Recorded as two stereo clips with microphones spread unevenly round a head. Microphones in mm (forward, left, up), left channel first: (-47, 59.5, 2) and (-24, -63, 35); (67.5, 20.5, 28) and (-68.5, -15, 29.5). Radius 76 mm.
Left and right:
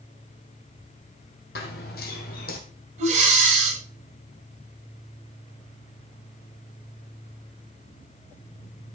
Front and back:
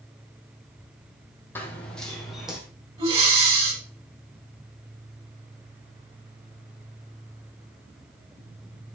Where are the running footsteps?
90° left, 3 m; by 2.6 s 110° left, 3.5 m.